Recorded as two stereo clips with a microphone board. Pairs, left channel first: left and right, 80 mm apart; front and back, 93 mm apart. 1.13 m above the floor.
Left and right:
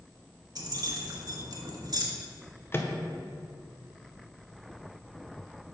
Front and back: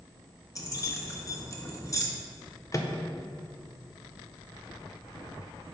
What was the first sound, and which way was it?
Keys jangling, 55° right.